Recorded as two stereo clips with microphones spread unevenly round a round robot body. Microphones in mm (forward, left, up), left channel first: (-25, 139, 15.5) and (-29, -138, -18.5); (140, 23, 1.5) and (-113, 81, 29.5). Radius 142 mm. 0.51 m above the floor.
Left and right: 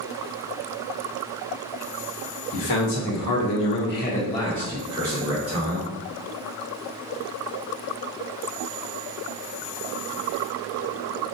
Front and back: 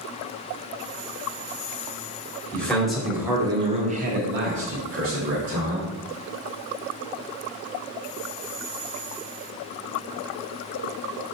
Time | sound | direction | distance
2.5 | a man speaking | 70° left | 1.3 m